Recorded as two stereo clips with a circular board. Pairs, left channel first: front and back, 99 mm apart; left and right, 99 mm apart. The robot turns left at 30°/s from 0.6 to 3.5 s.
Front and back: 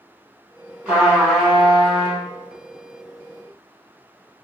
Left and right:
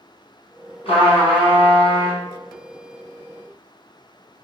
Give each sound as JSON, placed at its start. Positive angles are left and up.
{"t": 0.8, "sound": "a trumpet", "azimuth_deg": 105, "distance_m": 1.6}